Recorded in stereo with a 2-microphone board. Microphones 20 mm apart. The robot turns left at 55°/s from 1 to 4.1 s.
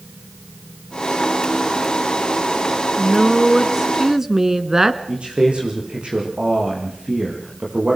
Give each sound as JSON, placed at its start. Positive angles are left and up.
{"t": 3.0, "sound": "a woman speaking", "side_deg": 0, "distance_m": 1.6}
{"t": 5.1, "sound": "a man speaking", "side_deg": -75, "distance_m": 7.5}